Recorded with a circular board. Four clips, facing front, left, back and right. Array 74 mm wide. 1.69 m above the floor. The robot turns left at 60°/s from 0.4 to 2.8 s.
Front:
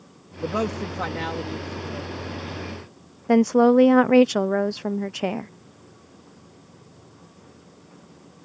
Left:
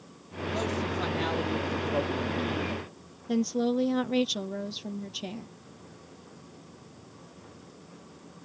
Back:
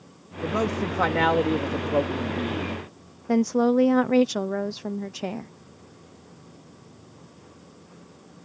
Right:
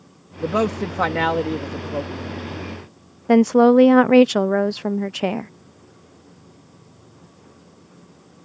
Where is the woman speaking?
70° right.